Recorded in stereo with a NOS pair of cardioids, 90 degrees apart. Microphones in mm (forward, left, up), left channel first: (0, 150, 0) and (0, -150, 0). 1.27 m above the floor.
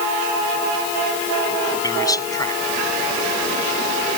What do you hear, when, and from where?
1.8 s a man speaking: 10° left